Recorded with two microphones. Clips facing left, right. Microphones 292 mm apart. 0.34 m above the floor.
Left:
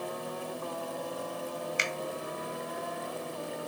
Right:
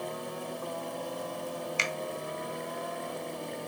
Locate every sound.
1.8 s a finger snap: 20° left (ahead or behind), 1.0 m